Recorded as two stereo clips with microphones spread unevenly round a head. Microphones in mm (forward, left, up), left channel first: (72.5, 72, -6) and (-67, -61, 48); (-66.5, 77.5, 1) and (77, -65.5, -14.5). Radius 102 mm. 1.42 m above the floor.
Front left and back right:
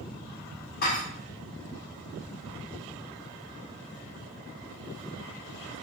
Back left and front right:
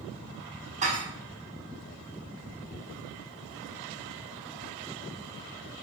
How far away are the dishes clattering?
About 0.7 m.